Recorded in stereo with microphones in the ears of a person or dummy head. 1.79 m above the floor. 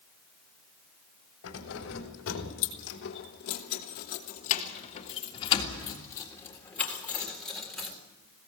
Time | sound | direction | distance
1.4 | keys jangling | 75° left (ahead or behind) | 3.5 m